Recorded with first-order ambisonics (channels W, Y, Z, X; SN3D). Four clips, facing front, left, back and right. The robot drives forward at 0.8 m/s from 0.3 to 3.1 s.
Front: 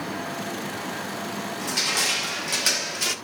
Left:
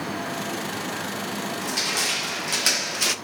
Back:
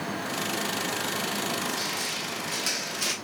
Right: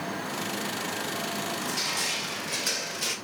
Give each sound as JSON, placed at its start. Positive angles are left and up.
{"t": 1.6, "sound": "crushing", "azimuth_deg": 35, "distance_m": 1.6}